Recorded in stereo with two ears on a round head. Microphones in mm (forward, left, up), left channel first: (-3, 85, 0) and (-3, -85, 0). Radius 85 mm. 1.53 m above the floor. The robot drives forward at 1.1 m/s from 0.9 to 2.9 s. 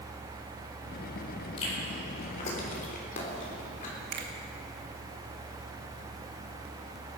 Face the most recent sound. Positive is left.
turn(degrees=-55)  # may be behind; listen again after turning